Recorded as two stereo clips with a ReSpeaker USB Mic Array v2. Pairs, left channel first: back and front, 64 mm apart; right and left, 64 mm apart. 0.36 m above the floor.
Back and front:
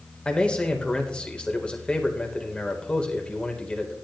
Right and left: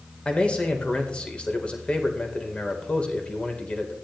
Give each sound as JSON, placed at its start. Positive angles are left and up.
{"t": 0.2, "sound": "a man speaking", "azimuth_deg": -135, "distance_m": 1.4}